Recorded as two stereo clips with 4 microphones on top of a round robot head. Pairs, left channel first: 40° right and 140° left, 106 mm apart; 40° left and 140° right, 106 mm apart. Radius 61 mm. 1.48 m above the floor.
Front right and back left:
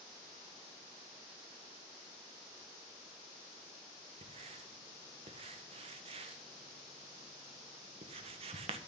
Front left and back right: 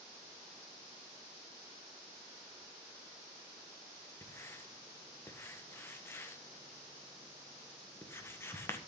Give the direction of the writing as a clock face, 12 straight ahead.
8 o'clock.